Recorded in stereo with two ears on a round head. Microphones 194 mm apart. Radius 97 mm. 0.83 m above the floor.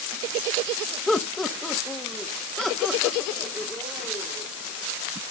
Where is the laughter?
Centre (ahead or behind), 0.8 m; by 4.5 s 5° left (ahead or behind), 3 m.